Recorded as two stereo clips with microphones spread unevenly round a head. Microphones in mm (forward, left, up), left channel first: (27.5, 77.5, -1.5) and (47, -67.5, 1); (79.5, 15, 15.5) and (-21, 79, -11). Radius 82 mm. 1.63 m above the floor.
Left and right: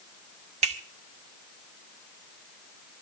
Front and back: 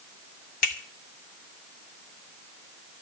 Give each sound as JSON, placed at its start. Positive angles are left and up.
{"t": 0.6, "sound": "a finger snap", "azimuth_deg": -40, "distance_m": 2.0}